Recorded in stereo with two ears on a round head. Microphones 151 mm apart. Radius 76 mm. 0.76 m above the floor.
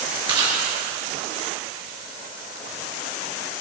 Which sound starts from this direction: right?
Chewing, at 0.3 s.